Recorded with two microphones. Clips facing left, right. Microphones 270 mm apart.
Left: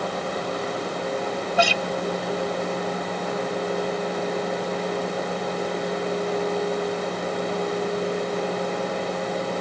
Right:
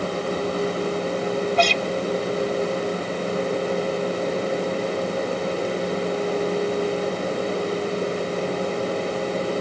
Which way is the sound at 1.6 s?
10° left (ahead or behind).